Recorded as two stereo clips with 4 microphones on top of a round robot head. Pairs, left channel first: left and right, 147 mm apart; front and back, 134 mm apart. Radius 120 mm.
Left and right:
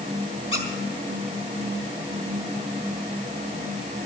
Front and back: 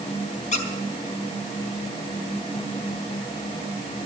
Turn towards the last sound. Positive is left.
turn(degrees=25)